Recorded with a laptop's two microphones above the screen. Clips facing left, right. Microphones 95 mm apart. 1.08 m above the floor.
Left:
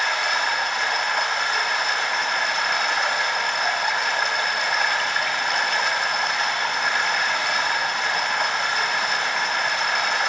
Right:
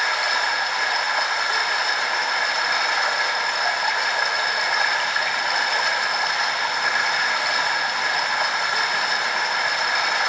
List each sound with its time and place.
0.0 s running water: centre (ahead or behind), 1.9 m